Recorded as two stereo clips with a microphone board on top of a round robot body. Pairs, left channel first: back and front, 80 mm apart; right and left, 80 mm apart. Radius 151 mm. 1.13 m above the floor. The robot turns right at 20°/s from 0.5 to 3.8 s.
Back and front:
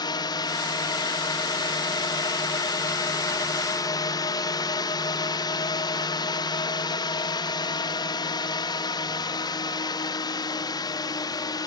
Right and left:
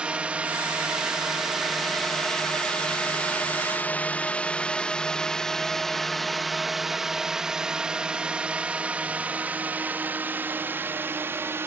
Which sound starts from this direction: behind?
A drone, at 0.0 s.